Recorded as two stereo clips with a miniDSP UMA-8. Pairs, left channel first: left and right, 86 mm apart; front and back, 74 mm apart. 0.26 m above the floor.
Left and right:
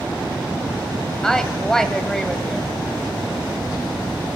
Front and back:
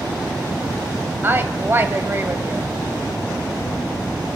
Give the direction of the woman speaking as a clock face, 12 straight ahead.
6 o'clock.